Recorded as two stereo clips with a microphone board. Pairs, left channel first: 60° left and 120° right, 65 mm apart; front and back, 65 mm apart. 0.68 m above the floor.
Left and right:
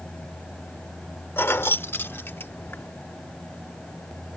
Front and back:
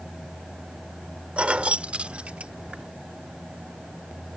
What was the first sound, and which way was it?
Keys jangling, 110° left.